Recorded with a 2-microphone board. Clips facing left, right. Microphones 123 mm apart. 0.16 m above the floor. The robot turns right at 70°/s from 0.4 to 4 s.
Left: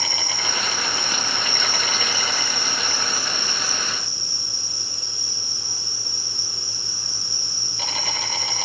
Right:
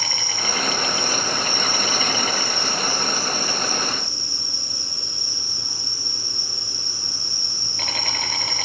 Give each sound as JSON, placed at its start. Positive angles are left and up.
{"t": 0.0, "sound": "an insect", "azimuth_deg": 20, "distance_m": 5.5}